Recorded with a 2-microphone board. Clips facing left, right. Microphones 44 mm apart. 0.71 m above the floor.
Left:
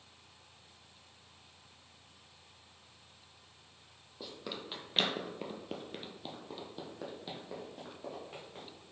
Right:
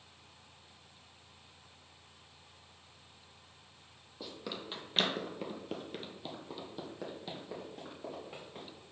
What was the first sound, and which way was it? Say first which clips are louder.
Running footsteps: right 1 dB; centre (ahead or behind).